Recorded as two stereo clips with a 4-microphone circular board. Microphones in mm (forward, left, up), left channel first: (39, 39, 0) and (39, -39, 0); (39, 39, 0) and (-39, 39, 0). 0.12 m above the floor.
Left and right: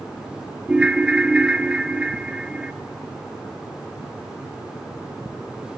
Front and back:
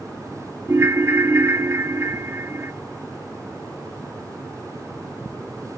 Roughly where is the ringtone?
Behind right.